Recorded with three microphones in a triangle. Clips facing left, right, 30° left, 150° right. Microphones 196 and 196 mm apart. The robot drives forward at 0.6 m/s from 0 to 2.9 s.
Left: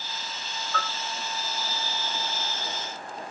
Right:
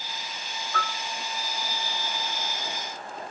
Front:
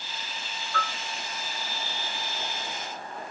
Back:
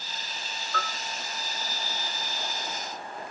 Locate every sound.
0.7 s a bell: 170° right, 3.5 m